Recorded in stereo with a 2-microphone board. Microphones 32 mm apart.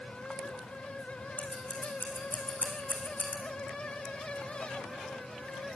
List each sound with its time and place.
1.4 s scissors: 80° left, 3.5 m